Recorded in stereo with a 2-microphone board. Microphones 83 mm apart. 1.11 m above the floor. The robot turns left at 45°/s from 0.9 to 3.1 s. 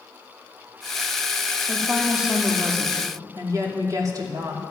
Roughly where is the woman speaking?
Ahead.